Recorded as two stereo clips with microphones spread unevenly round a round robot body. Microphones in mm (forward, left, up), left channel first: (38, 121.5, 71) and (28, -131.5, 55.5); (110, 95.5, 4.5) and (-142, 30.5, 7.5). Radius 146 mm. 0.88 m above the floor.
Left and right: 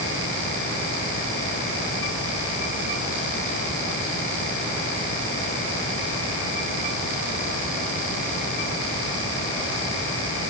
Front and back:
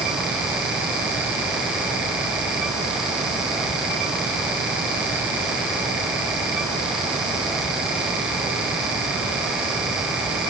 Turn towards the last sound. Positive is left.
No sound to turn to.